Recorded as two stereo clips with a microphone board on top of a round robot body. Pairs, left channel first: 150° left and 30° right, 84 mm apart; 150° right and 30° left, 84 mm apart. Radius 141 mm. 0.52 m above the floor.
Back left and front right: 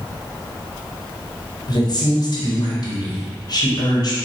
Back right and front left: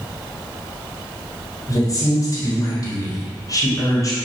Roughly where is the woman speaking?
Behind.